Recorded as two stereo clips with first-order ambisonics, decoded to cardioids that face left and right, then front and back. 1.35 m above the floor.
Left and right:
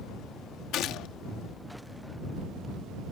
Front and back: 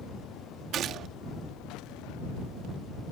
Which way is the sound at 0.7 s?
130° left.